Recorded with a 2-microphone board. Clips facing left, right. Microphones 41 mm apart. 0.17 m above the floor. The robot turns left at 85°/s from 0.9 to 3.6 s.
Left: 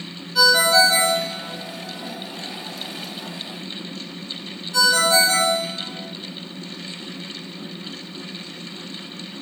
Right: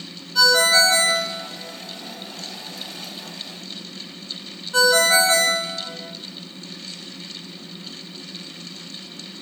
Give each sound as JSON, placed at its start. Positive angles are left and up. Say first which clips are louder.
{"t": 0.3, "sound": "a ringtone", "louder": "left 1 dB", "side_deg": 5, "distance_m": 0.6}